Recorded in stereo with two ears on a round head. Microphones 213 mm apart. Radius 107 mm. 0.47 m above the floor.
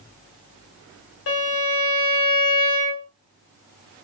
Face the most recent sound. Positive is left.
turn(degrees=55)  # may be behind; listen again after turning